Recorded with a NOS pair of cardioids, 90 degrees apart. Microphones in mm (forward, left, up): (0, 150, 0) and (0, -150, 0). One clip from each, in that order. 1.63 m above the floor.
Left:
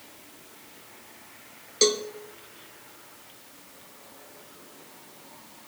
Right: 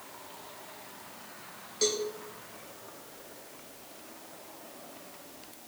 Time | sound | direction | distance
1.8 | a cowbell | 60° left | 1.5 m